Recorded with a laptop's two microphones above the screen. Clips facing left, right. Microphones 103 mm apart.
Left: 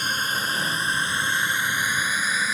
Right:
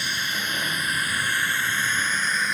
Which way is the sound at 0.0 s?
40° left (ahead or behind).